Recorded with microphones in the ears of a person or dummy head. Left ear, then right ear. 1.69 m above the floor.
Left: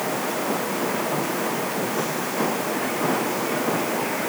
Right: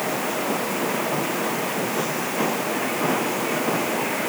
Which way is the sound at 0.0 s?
Centre (ahead or behind).